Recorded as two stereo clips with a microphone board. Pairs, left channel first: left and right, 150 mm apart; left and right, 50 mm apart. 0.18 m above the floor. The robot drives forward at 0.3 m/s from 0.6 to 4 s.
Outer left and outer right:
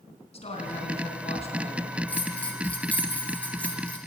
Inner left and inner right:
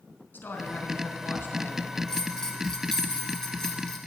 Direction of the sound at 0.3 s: 45° left (ahead or behind).